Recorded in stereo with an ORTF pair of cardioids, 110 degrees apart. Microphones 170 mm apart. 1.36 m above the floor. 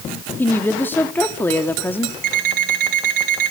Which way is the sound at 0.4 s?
10° left.